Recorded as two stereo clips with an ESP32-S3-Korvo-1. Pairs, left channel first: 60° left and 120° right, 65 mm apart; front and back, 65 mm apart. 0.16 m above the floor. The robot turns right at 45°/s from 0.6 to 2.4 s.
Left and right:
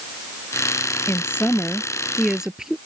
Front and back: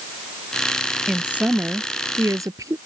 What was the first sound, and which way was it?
A woman speaking, 100° left.